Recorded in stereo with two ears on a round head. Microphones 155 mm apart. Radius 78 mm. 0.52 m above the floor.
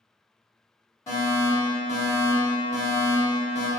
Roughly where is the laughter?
I don't hear laughter.